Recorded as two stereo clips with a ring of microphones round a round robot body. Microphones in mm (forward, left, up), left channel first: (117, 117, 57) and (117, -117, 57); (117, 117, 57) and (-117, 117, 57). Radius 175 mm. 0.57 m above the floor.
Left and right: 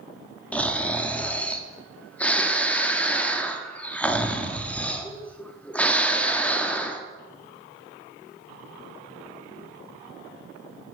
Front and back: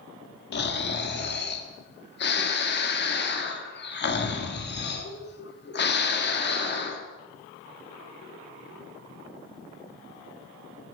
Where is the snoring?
5° left, 1.2 m.